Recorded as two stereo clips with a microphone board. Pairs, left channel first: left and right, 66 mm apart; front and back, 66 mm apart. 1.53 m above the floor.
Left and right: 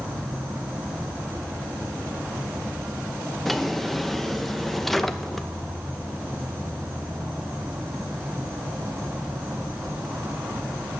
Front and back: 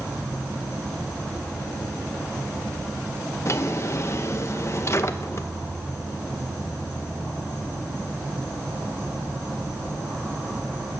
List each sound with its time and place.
0.0 s an insect: 125° right, 8 m
3.5 s a drawer: 5° left, 0.8 m